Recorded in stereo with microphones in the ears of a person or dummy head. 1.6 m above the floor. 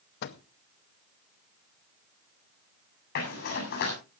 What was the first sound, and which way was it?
A microwave, 50° left (ahead or behind).